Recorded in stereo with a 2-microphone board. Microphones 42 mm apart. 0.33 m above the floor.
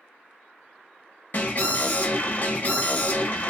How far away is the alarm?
About 1.1 m.